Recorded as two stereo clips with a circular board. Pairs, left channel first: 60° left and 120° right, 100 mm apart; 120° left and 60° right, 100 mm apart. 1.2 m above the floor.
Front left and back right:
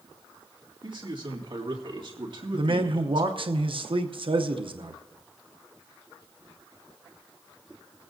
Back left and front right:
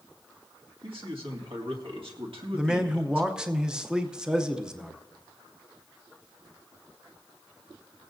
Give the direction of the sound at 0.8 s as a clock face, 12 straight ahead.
3 o'clock.